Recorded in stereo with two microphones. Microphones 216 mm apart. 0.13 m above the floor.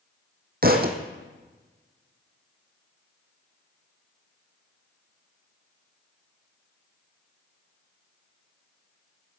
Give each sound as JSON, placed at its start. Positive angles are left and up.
{"t": 0.6, "sound": "a thud", "side_deg": -45, "distance_m": 1.7}